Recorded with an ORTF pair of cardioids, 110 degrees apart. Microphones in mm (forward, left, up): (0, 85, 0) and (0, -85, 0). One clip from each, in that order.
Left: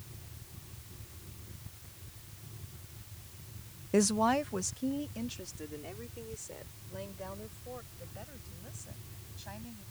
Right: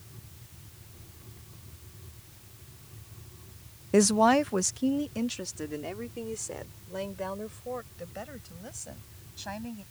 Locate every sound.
3.9 s a woman speaking: 20° right; by 9.8 s 55° right